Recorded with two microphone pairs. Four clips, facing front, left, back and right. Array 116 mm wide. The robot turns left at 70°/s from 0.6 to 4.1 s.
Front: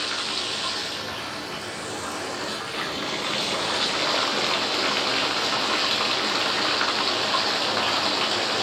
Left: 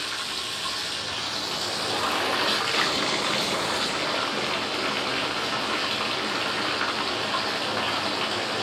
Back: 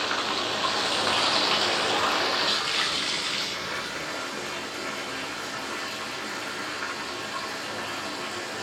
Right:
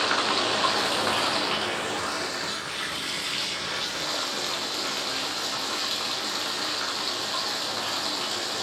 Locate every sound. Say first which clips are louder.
0.0 s running water: right 9 dB, back 3 dB; 105° right, 0.8 m; by 8.6 s 10° left, 0.8 m